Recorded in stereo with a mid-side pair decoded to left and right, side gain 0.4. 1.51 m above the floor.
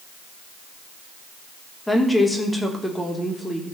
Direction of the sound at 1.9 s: 10° left.